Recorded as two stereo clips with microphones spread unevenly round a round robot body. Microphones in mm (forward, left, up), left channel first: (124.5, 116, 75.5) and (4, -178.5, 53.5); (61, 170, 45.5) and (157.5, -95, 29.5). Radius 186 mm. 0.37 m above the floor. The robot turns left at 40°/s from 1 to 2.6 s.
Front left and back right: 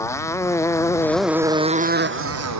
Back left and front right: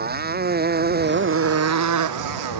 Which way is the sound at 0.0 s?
15° right.